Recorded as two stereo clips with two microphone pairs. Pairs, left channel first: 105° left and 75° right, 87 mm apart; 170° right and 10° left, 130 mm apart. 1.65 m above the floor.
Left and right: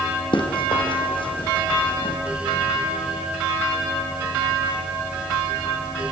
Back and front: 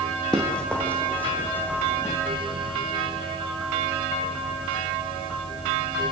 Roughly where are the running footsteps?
Left.